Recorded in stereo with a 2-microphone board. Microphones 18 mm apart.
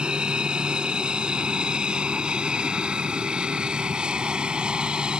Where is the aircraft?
65° right (ahead or behind).